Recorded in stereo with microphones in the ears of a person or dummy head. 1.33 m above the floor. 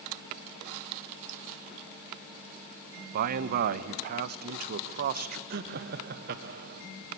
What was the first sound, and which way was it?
A man speaking, 50° right (ahead or behind).